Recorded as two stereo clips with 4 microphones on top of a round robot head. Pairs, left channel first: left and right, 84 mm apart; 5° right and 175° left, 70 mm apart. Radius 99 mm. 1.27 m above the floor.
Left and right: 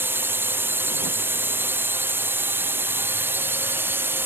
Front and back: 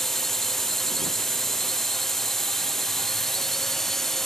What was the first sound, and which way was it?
A drone, 85° right.